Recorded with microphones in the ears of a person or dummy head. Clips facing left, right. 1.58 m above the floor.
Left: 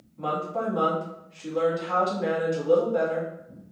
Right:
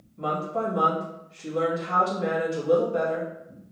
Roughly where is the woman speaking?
Right.